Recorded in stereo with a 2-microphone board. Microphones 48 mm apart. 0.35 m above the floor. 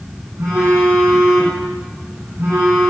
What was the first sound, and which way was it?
A phone buzzing, 80° right.